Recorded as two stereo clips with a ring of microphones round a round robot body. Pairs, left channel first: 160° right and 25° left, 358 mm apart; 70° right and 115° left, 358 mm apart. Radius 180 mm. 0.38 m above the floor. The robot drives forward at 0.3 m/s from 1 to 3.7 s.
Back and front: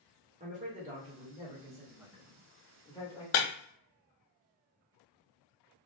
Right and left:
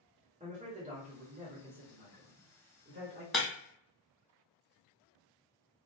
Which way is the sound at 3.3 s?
155° right.